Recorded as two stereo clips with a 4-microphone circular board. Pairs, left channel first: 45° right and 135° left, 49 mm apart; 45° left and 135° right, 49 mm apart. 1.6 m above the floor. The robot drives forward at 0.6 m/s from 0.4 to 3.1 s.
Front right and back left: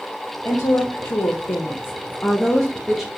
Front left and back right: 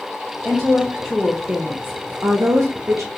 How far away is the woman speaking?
About 1.1 m.